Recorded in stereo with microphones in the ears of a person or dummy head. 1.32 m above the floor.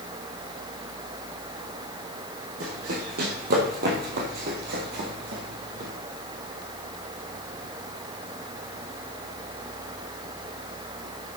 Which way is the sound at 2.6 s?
55° right (ahead or behind).